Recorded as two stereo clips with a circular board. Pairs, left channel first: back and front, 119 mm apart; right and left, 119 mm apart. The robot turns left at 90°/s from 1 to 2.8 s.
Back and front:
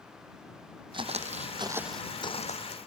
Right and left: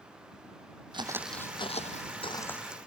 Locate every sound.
0.9 s footsteps: 45° left; by 2.8 s 170° left